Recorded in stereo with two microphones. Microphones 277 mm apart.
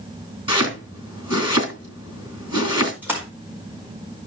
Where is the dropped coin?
I don't hear a dropped coin.